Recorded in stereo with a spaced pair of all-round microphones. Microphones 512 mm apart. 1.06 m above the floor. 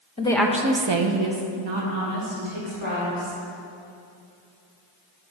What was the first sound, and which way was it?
A woman speaking, 15° left (ahead or behind).